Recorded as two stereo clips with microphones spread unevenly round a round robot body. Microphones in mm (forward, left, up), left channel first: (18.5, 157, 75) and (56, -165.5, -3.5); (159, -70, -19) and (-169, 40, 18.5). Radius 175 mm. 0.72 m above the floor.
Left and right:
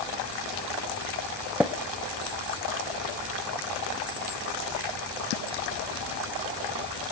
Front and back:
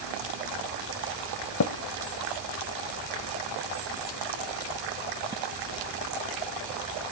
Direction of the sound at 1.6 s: 20° left.